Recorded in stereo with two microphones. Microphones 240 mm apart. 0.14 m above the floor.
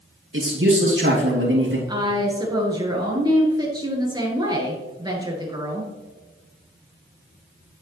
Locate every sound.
0.3 s a man speaking: 60° right (ahead or behind), 2.5 m
1.9 s a woman speaking: 20° right (ahead or behind), 2 m